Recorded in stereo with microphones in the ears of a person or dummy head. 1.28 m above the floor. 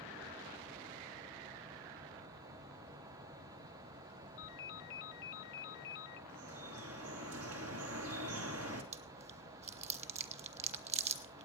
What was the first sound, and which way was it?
A ringtone, 70° left (ahead or behind).